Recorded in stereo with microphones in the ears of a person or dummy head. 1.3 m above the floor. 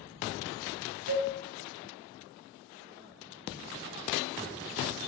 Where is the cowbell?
80° right, 1.0 m.